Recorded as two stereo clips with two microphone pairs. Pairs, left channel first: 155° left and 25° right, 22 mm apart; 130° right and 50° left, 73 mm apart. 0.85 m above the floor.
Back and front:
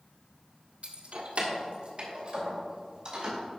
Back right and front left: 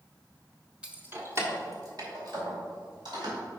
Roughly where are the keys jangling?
Ahead right.